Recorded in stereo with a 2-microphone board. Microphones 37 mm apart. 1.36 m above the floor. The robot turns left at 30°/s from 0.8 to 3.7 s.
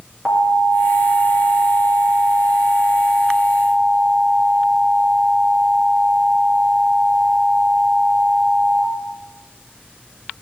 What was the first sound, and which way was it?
An alarm, 20° right.